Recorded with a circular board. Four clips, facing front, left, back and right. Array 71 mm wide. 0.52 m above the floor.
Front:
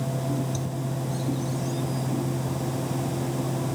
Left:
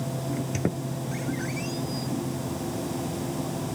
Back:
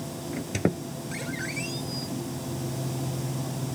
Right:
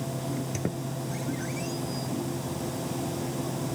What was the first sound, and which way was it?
A squeak, 165° left.